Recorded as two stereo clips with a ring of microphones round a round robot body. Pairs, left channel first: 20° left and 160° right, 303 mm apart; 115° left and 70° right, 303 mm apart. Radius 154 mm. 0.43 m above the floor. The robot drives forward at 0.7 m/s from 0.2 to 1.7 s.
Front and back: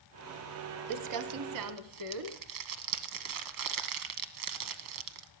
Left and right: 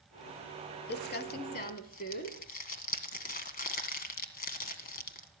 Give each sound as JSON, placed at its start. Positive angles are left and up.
{"t": 0.9, "sound": "crumpling", "azimuth_deg": 170, "distance_m": 0.8}